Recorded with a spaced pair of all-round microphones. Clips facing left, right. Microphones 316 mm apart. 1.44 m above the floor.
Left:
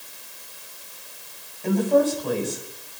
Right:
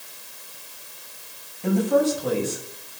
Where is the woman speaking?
85° right, 6.5 m.